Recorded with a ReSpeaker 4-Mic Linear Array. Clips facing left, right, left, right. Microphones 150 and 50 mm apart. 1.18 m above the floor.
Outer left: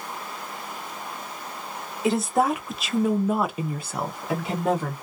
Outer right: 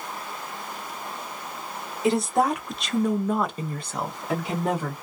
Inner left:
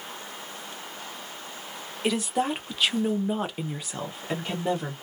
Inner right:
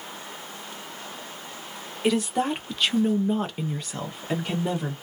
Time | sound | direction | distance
2.0 | a woman speaking | centre (ahead or behind) | 1.0 m